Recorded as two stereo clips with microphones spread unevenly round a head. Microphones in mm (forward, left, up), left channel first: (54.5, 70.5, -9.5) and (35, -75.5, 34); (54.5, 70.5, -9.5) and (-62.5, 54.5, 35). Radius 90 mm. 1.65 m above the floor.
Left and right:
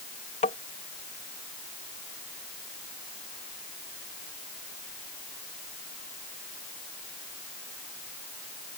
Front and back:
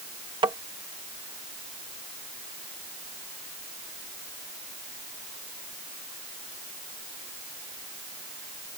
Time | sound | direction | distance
0.4 | tapping | 140° left | ?